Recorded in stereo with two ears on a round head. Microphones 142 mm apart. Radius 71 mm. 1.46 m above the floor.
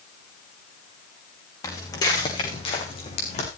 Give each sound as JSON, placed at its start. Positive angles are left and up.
{"t": 1.6, "sound": "footsteps", "side_deg": 25, "distance_m": 6.5}